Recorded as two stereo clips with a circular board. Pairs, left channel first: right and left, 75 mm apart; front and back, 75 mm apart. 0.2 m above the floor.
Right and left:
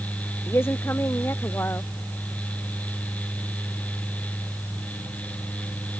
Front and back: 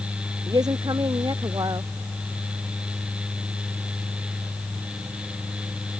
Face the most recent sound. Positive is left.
turn(degrees=-150)